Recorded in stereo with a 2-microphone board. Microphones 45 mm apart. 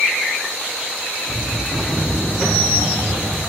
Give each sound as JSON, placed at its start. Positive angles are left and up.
{"t": 1.6, "sound": "footsteps", "side_deg": 15, "distance_m": 3.0}